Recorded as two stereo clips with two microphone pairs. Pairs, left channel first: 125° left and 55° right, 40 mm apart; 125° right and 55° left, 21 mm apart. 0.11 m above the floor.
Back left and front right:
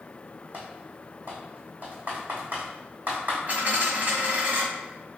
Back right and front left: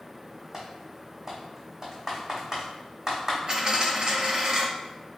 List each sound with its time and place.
0.5 s typing on a keyboard: 5° right, 1.4 m
3.5 s a dropped coin: 5° left, 1.6 m